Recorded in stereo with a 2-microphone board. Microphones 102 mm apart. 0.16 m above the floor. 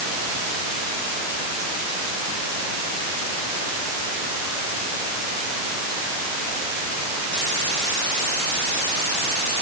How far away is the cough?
No cough in this recording.